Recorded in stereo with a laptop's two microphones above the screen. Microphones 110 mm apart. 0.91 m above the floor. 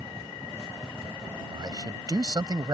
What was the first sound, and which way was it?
A man speaking, 35° right (ahead or behind).